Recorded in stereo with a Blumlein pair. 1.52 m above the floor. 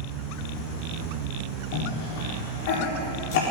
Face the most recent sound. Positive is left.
turn(degrees=50)